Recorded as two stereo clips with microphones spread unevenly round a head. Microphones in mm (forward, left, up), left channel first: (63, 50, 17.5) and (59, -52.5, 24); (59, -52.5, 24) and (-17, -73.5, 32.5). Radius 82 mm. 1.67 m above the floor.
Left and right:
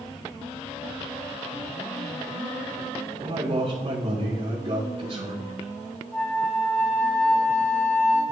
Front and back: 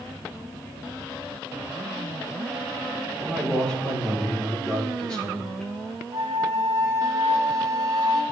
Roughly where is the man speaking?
Ahead right.